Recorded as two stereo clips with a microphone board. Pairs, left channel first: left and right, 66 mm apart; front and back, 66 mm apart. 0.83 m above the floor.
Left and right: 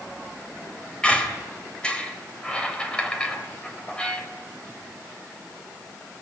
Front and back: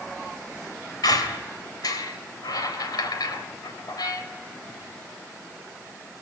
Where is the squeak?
15° left, 3 m.